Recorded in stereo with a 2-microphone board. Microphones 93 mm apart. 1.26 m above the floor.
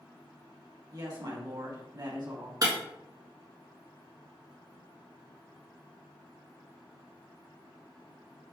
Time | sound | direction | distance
0.9 | a woman speaking | 45° right (ahead or behind) | 1.5 m
2.6 | breaking glass | 40° right (ahead or behind) | 1.4 m